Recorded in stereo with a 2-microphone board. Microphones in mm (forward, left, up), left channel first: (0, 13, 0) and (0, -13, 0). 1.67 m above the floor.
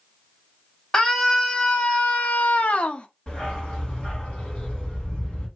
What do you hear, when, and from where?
0.9 s a scream: 40° left (ahead or behind), 1.1 m; by 3.1 s 45° left (ahead or behind), 0.7 m
3.3 s a dog barking: 45° left (ahead or behind), 2 m